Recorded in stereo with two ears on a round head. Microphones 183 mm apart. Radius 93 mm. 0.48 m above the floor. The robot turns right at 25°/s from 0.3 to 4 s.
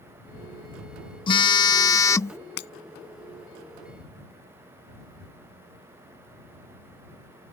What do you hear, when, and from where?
1.3 s a phone buzzing: 25° left (ahead or behind); by 2.4 s 15° left (ahead or behind)
2.6 s breaking glass: 55° left (ahead or behind)